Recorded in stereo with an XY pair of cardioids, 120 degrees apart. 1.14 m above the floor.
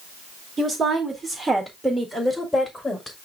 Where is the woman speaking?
35° right, 2 m; by 3.2 s 20° left, 2 m.